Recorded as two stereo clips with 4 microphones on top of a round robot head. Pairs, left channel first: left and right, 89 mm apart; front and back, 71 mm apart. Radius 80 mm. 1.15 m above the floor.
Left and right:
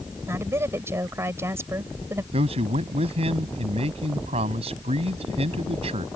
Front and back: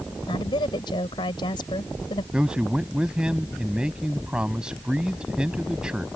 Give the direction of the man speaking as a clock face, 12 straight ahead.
3 o'clock.